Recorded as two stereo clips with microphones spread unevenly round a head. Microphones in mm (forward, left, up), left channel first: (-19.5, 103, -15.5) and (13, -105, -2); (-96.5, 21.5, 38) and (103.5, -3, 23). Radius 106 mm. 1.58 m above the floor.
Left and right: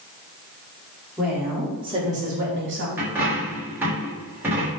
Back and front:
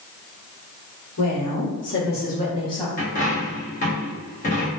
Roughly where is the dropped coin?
Behind right.